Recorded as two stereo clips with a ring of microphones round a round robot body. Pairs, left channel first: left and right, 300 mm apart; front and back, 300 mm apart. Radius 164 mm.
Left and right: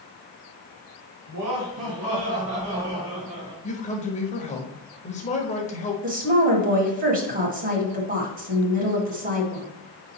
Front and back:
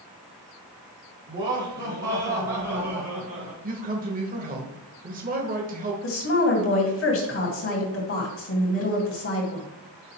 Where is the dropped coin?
I don't hear a dropped coin.